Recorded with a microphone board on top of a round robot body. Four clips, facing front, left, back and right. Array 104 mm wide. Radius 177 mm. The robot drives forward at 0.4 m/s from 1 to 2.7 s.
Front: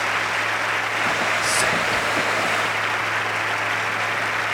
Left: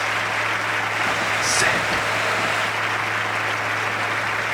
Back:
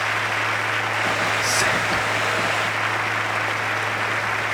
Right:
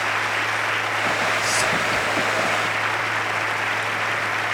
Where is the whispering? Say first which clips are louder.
Left 1 dB, even; 95° left, 0.7 m; by 2.1 s 125° left, 0.7 m.